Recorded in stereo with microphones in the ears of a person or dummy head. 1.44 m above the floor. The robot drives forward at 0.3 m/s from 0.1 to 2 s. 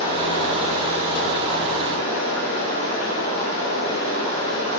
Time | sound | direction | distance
0.0 | running water | 25° left (ahead or behind) | 1.8 m